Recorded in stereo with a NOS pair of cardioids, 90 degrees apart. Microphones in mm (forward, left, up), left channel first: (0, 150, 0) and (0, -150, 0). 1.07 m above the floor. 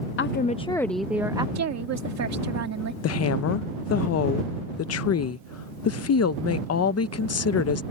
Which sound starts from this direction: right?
A woman speaking, at 1.6 s.